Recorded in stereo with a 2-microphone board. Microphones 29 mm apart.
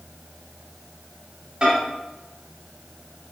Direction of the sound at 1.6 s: 20° right (ahead or behind).